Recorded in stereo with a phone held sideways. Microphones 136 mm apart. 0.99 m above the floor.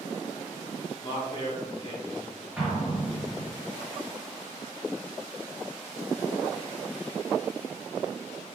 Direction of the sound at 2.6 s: 10° right (ahead or behind).